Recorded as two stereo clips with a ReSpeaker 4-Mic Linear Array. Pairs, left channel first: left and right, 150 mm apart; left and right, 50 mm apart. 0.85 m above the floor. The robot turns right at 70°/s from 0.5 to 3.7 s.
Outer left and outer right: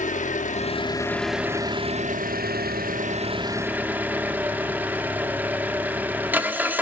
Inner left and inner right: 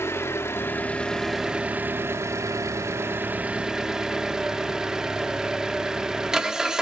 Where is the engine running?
125° left, 1.1 m; by 6.8 s 10° right, 1.1 m.